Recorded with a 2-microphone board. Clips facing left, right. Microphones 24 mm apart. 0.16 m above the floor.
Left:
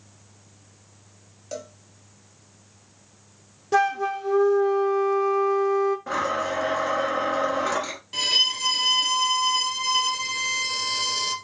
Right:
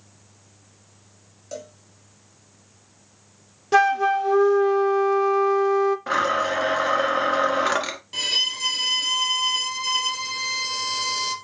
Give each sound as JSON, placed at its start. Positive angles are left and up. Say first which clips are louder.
{"t": 1.5, "sound": "a cowbell", "louder": "left 1 dB", "side_deg": 15, "distance_m": 0.9}
{"t": 3.7, "sound": "a flute", "louder": "right 4 dB", "side_deg": -30, "distance_m": 0.5}
{"t": 6.1, "sound": "a blender", "louder": "right 4 dB", "side_deg": -45, "distance_m": 1.0}
{"t": 8.1, "sound": "a violin", "louder": "left 2 dB", "side_deg": 5, "distance_m": 1.0}